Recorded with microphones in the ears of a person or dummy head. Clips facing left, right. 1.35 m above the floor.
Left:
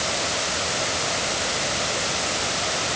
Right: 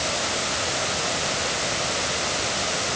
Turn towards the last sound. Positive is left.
No sound to turn to.